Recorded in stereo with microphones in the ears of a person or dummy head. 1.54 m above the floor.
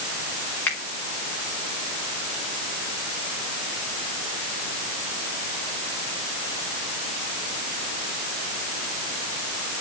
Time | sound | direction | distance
0.7 | a finger snap | 10° left (ahead or behind) | 3.5 m